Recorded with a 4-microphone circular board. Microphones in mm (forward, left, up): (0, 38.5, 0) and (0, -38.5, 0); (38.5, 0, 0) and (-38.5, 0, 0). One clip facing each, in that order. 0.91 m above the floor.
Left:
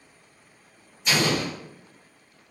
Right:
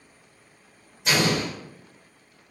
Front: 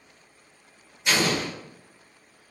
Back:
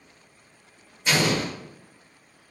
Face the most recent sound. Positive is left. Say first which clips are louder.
# right 1 dB, back 1 dB
turn(degrees=-110)